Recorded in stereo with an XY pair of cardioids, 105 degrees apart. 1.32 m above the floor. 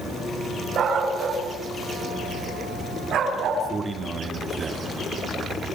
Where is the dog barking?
65° right, 7 m; by 3.6 s 75° right, 10.5 m.